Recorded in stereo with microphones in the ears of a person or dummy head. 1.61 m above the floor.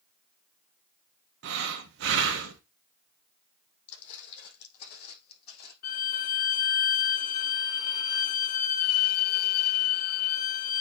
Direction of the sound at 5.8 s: 60° left (ahead or behind).